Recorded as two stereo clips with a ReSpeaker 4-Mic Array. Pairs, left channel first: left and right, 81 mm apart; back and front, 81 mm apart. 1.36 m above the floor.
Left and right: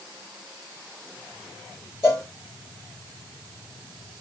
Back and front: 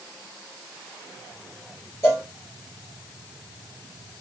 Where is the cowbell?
135° left, 1.5 m.